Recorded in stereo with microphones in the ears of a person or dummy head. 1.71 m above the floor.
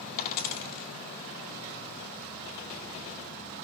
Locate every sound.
0.2 s a dropped coin: 50° left (ahead or behind), 1.8 m